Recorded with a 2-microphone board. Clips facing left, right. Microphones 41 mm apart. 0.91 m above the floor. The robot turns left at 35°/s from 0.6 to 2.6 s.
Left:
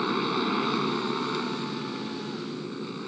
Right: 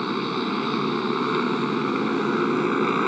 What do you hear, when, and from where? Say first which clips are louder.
0.0 s a motorcycle: right 1 dB; 5° right; by 3.1 s 75° right